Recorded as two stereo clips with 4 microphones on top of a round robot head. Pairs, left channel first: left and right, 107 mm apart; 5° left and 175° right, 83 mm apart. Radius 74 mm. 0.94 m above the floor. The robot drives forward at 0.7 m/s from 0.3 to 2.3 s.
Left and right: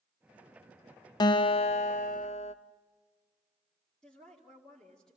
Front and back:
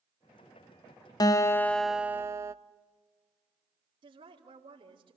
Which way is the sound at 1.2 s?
45° left.